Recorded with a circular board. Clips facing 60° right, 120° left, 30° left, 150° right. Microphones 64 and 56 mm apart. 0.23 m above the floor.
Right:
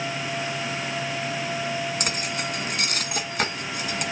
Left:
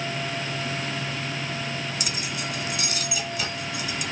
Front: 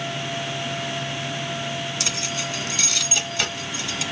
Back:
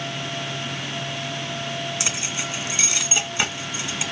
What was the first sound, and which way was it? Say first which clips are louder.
Keys jangling: right 3 dB, even; 85° right.